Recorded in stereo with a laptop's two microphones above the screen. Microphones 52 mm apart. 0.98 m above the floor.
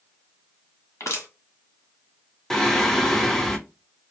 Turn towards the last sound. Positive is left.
turn(degrees=5)  # may be behind; listen again after turning